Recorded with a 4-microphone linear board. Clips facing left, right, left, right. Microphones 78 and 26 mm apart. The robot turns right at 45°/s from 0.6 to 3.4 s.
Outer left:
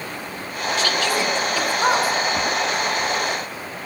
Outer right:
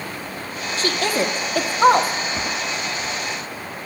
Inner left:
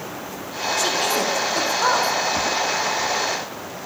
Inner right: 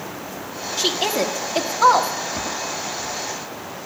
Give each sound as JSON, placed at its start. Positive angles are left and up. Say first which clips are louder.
{"t": 0.8, "sound": "a woman speaking", "louder": "outer right 1 dB, inner right 1 dB", "side_deg": -35, "distance_m": 1.4}